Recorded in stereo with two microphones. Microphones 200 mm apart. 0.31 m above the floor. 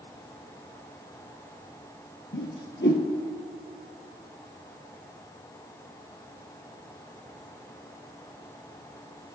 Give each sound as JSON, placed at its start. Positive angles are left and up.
{"t": 2.3, "sound": "a whoosh", "side_deg": 70, "distance_m": 1.5}